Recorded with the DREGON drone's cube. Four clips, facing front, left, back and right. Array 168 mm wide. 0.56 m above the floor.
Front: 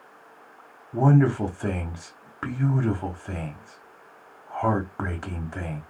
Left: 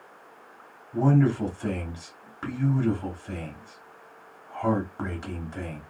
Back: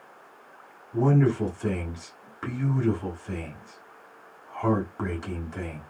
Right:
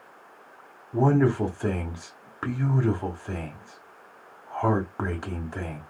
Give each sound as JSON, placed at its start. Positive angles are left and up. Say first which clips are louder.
{"t": 0.9, "sound": "a man speaking", "louder": "right 1 dB, front 2 dB", "azimuth_deg": -45, "distance_m": 1.0}